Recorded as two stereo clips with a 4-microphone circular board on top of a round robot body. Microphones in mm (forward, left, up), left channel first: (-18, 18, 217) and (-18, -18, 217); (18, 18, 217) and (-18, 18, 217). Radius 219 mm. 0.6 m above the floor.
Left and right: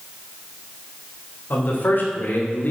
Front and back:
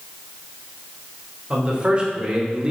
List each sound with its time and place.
1.5 s a man speaking: 120° left, 3.5 m; by 2.7 s 115° left, 2.5 m